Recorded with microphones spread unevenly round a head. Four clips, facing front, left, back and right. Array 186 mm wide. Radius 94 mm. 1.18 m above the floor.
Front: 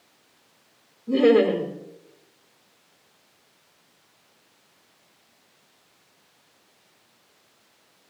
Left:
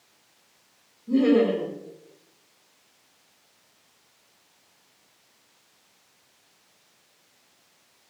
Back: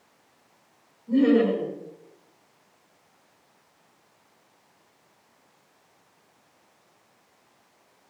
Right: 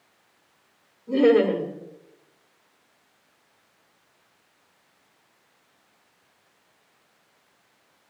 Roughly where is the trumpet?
I don't hear a trumpet.